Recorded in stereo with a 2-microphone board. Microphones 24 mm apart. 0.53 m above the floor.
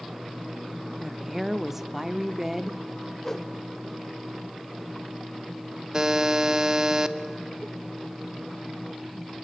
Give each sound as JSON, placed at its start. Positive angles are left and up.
{"t": 1.0, "sound": "a woman speaking", "side_deg": -10, "distance_m": 0.7}
{"t": 3.2, "sound": "a whoosh", "side_deg": 15, "distance_m": 1.3}
{"t": 5.9, "sound": "a buzzer", "side_deg": -25, "distance_m": 0.8}